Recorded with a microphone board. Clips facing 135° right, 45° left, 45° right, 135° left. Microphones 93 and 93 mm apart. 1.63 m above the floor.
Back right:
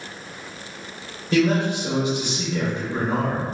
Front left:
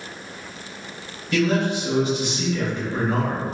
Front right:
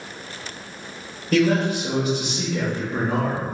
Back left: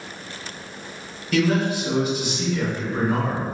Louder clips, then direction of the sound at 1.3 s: Back right 1 dB, front right 2 dB; 70° right.